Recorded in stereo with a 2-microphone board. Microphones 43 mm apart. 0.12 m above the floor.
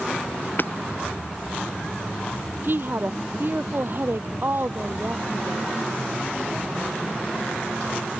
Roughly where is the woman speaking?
Right.